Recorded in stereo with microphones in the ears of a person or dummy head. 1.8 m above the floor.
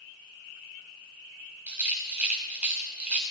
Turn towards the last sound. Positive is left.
turn(degrees=-5)  # may be behind; listen again after turning